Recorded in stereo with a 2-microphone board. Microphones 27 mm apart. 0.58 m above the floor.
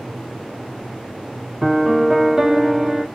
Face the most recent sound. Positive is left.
turn(degrees=-15)  # may be behind; listen again after turning